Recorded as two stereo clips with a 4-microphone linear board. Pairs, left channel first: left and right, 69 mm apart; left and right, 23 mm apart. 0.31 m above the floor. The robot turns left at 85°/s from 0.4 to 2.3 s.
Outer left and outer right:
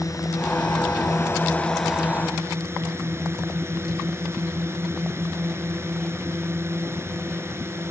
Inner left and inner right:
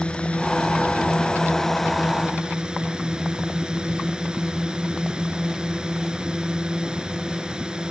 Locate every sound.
0.0 s a drone: 120° left; by 7.9 s 40° right